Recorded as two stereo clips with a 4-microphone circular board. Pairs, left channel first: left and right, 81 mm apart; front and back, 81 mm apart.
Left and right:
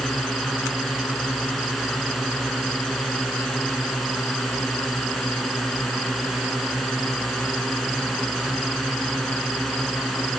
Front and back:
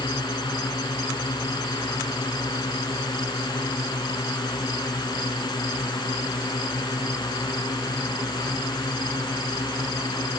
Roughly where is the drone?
Ahead.